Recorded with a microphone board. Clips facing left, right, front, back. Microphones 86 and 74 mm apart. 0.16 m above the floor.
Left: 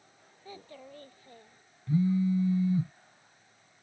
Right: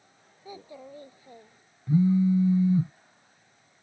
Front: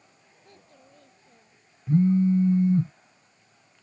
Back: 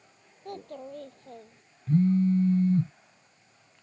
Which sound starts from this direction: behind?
A child speaking, at 0.5 s.